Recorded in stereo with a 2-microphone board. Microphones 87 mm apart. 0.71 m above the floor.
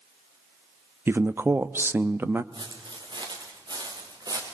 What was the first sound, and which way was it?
A man speaking, 25° right (ahead or behind).